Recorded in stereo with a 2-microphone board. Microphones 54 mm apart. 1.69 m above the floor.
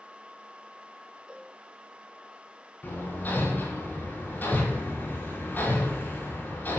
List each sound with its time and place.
1.3 s a cowbell: 20° right (ahead or behind), 1.5 m
2.8 s hammering: 35° left (ahead or behind), 5 m